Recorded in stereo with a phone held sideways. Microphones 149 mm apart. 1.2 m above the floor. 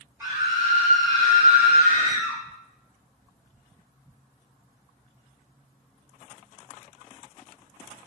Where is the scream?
15° right (ahead or behind), 0.6 m; by 2.4 s 65° right (ahead or behind), 1.5 m.